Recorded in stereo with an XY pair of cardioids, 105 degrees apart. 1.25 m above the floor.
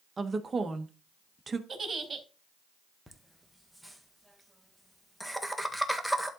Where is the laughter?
Straight ahead, 1.6 m.